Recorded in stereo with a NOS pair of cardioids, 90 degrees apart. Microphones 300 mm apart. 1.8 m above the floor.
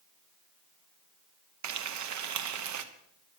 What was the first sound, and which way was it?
Frying, 70° right.